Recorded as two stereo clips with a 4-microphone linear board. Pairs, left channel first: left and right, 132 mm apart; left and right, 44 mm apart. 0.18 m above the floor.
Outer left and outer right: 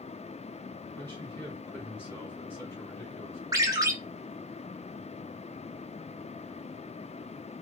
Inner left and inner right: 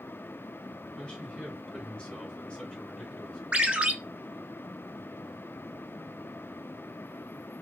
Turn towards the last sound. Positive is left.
turn(degrees=-30)  # may be behind; listen again after turning